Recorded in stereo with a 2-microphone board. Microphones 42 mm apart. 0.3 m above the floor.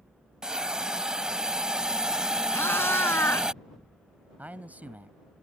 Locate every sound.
0.4 s a hiss: 20° right (ahead or behind)
2.5 s a cat meowing: 75° left (ahead or behind)
4.4 s a man speaking: 45° right (ahead or behind)